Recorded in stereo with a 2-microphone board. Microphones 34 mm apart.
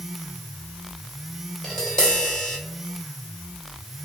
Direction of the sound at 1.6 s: 20° left (ahead or behind).